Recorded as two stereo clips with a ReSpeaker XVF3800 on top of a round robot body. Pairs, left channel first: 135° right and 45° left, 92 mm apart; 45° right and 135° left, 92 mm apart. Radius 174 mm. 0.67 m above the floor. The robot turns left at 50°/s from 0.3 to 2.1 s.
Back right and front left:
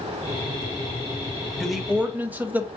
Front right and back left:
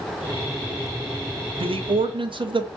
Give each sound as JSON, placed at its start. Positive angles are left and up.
{"t": 1.6, "sound": "a man speaking", "azimuth_deg": 140, "distance_m": 0.9}